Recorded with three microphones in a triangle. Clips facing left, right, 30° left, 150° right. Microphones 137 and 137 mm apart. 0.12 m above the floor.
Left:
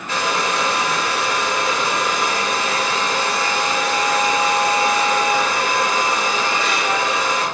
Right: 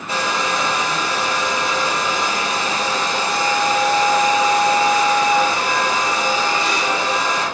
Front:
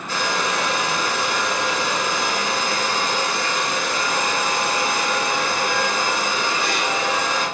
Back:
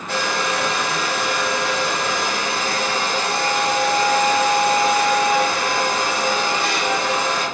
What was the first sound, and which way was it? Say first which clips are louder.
A hair dryer: even, back 1 dB; 150° right.